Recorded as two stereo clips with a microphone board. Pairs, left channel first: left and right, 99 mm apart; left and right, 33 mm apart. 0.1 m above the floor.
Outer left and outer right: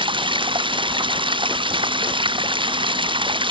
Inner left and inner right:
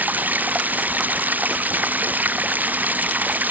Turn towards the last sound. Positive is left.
turn(degrees=-60)  # may be behind; listen again after turning